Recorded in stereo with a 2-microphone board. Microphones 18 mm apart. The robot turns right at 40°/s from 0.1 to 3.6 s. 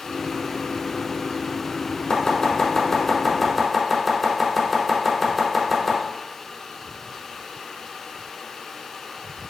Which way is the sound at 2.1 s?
45° left (ahead or behind).